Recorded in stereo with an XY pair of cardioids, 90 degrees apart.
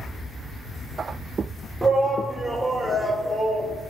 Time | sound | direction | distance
1.8 | a shout | 10° right | 3.5 m